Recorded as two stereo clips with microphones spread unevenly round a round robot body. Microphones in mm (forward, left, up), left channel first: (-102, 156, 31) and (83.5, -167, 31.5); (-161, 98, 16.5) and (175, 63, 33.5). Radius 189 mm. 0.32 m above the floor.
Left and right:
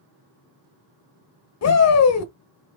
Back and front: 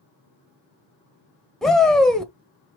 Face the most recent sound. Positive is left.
turn(degrees=90)